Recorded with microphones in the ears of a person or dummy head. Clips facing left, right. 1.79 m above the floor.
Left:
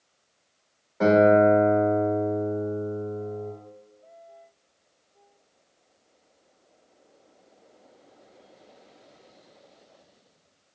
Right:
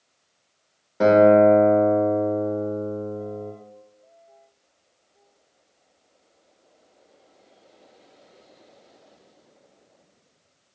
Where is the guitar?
40° right (ahead or behind), 0.7 m.